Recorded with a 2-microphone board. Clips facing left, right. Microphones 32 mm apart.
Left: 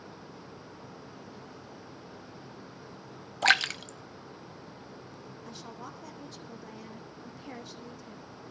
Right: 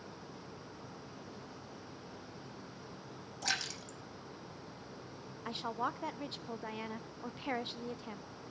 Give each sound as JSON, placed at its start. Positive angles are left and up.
{"t": 3.4, "sound": "a splash", "side_deg": 55, "distance_m": 0.8}
{"t": 5.5, "sound": "a woman speaking", "side_deg": -45, "distance_m": 0.9}